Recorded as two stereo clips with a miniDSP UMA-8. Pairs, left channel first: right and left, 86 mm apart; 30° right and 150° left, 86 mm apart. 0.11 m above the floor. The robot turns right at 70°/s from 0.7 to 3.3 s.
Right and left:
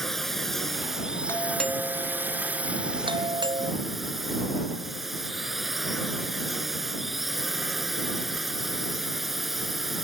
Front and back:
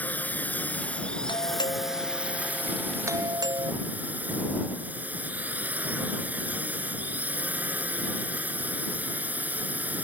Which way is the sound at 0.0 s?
10° right.